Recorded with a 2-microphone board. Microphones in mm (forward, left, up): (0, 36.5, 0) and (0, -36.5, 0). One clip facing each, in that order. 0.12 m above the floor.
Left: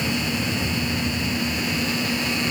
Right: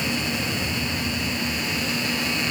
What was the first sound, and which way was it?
Only background noise.